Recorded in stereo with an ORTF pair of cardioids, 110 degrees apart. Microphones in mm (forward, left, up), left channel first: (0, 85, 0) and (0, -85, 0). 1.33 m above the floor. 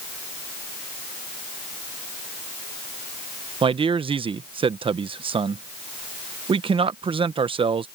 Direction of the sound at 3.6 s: 35° right.